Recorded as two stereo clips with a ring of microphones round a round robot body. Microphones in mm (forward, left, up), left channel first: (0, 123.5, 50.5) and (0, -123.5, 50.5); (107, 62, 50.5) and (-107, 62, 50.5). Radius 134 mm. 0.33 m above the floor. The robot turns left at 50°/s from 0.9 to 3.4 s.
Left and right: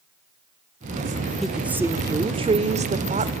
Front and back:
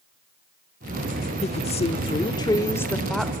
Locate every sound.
1.4 s a woman speaking: straight ahead, 0.9 m; by 3.3 s 95° right, 0.9 m